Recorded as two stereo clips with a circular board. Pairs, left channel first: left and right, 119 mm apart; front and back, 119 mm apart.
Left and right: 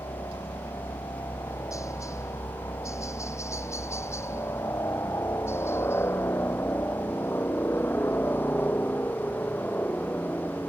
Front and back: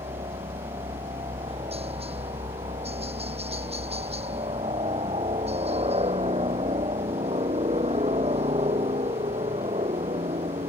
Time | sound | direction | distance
0.0 | a helicopter | 150° left | ?